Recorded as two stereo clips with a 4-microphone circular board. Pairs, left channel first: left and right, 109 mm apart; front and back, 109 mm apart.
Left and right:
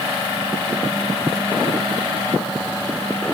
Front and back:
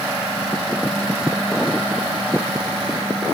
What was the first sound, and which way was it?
Only background noise.